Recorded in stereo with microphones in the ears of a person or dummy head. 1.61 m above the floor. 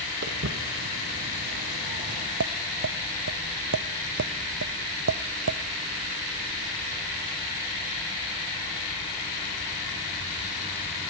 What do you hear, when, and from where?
0.2 s footsteps: 60° right (ahead or behind), 3.5 m; by 2.3 s 30° right (ahead or behind), 2 m
2.4 s tapping: 65° right (ahead or behind), 0.7 m